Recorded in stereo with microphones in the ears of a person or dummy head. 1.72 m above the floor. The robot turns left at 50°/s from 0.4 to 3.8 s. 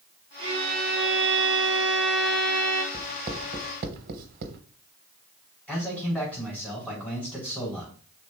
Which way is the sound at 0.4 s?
30° right.